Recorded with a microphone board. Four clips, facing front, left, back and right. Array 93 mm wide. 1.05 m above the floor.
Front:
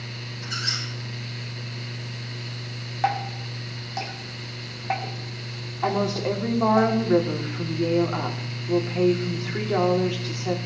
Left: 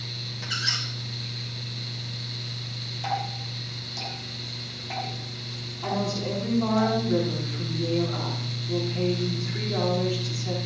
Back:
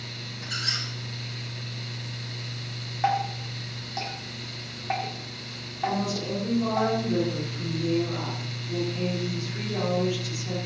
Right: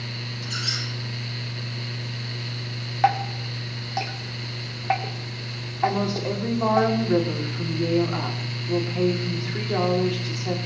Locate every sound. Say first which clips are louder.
0.4 s a squeak: left 1 dB, front 2 dB; 100° left, 4.5 m
3.0 s dripping: right 8 dB, even; 80° right, 2.5 m
5.8 s a woman speaking: right 5 dB, front 4 dB; 30° right, 3 m